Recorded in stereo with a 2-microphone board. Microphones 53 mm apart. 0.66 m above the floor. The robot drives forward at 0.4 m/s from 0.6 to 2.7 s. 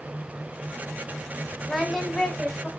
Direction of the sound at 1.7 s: Centre (ahead or behind).